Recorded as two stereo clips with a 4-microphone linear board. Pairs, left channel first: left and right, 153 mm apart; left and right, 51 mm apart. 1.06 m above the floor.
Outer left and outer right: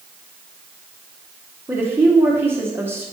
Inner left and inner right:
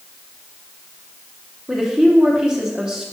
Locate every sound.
1.7 s a woman speaking: 15° right (ahead or behind), 0.9 m